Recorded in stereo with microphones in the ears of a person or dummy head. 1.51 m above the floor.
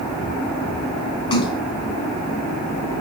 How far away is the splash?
About 3 m.